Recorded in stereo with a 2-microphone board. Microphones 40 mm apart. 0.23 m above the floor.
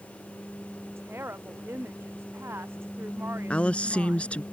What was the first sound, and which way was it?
A woman speaking, 80° right.